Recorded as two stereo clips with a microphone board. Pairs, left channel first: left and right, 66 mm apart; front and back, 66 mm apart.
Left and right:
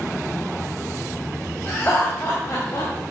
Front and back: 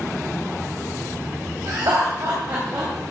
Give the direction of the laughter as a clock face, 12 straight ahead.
7 o'clock.